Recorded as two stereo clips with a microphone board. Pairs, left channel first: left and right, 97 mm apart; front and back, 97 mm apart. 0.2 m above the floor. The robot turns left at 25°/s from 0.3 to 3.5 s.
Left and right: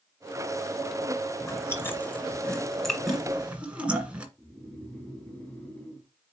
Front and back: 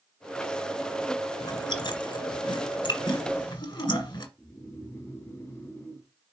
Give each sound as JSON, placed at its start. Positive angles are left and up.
{"t": 1.4, "sound": "chewing", "azimuth_deg": 40, "distance_m": 1.6}
{"t": 4.4, "sound": "snoring", "azimuth_deg": 30, "distance_m": 1.6}